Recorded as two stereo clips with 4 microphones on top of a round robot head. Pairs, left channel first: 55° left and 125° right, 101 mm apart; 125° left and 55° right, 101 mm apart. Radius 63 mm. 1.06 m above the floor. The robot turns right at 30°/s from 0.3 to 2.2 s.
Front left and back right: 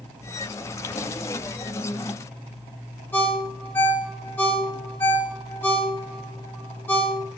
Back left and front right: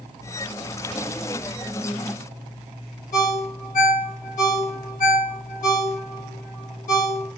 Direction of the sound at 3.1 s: 125° left.